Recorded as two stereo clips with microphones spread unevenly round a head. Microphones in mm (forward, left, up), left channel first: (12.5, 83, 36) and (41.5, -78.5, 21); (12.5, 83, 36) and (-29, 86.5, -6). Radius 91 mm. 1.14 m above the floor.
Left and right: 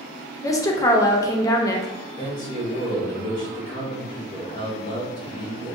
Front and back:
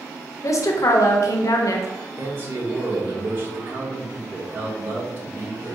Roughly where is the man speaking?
Behind.